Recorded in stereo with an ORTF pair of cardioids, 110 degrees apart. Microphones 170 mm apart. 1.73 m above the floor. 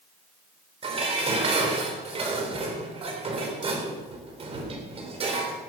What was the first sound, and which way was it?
Dishes clattering, 35° right.